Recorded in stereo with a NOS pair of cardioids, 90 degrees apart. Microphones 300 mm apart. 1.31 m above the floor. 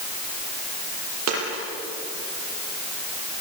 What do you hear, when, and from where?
1.3 s a dropped coin: 60° right, 9.5 m